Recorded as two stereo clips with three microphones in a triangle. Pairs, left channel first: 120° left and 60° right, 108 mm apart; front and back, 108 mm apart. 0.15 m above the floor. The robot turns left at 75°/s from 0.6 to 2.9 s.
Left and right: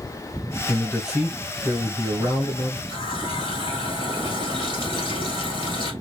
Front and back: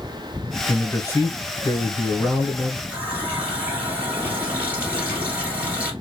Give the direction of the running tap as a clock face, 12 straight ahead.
8 o'clock.